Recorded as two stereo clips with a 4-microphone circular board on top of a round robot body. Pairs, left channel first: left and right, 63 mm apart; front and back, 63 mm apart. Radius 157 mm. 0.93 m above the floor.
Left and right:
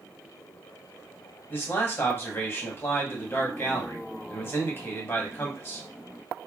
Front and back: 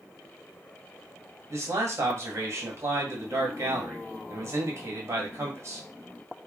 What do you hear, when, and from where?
1.5 s a man speaking: 140° left, 1.9 m